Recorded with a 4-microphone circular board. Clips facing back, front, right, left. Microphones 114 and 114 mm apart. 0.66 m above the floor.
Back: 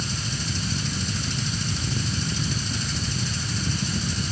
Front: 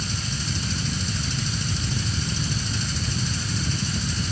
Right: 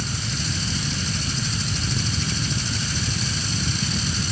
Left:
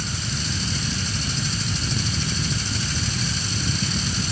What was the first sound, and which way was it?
Only background noise.